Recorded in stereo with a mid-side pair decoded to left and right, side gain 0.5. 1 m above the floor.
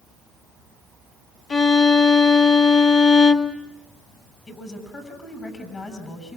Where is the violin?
45° left, 1.7 m.